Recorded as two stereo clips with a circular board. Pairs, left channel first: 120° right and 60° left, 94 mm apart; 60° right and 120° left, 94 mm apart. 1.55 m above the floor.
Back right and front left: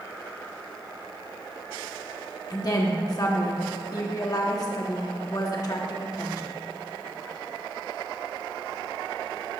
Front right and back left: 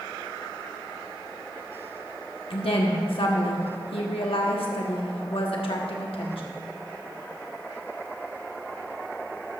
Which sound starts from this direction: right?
A woman speaking, at 2.5 s.